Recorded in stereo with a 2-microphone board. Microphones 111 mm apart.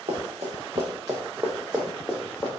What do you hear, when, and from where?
0.1 s running footsteps: 70° right (ahead or behind), 1.1 m; by 2.5 s 20° left (ahead or behind), 1.1 m